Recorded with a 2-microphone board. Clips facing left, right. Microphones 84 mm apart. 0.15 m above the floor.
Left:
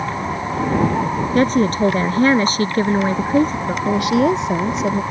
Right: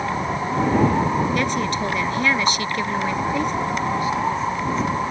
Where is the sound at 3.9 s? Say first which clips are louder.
Left 10 dB; 75° left (ahead or behind).